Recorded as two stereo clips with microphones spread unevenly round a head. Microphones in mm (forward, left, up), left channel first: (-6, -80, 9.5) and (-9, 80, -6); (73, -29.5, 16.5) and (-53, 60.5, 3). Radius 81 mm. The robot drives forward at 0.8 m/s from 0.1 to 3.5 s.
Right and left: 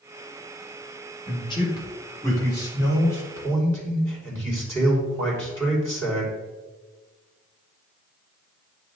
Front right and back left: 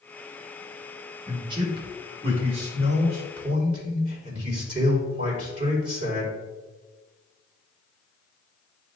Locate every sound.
1.3 s a man speaking: 150° right, 2.0 m; by 6.3 s 165° right, 3.5 m